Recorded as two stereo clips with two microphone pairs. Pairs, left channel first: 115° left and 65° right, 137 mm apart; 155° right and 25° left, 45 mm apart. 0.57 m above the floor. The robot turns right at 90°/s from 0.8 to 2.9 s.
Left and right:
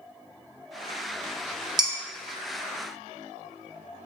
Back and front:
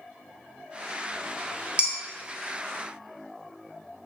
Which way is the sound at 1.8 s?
20° right.